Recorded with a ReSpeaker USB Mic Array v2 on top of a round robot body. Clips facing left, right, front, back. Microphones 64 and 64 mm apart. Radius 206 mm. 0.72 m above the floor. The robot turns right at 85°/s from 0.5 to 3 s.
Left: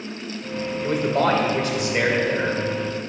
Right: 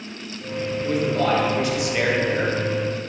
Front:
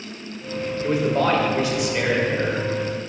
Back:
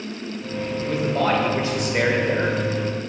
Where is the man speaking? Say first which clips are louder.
Left 1 dB, front 2 dB; 60° left, 1.6 m; by 2.6 s 150° right, 1.6 m.